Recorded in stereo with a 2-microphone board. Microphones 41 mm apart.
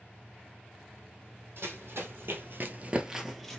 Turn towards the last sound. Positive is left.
turn(degrees=10)  # may be behind; listen again after turning